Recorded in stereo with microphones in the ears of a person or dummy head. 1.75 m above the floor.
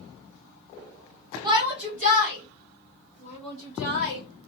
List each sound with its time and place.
1.4 s a shout: 20° right (ahead or behind), 1.3 m; by 4.2 s 70° right (ahead or behind), 3.5 m